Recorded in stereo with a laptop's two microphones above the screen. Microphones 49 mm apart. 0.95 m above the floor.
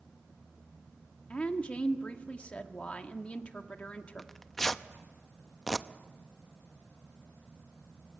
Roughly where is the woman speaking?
Left.